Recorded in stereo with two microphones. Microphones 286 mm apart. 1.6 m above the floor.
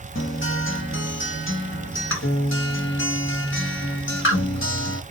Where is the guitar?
45° left (ahead or behind), 1.4 m.